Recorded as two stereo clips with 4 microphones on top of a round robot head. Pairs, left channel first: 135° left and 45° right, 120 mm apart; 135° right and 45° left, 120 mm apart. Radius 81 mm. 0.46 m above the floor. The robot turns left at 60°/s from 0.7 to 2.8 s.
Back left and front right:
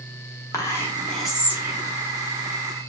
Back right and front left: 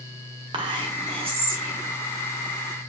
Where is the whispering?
75° left, 1.3 m; by 1.9 s 5° left, 1.3 m.